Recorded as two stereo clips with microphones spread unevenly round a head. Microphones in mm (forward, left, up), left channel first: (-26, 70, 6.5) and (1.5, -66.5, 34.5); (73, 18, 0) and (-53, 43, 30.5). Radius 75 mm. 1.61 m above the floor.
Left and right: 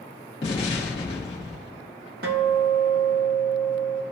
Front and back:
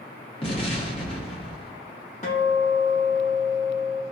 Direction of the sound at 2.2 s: 65° right.